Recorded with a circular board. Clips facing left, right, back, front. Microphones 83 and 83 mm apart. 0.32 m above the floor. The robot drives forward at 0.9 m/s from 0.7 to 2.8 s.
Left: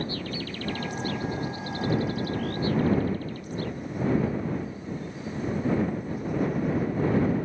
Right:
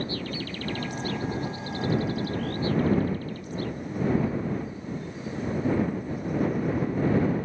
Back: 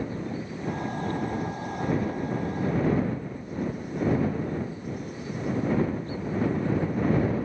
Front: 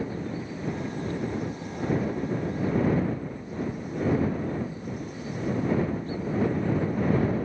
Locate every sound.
Only background noise.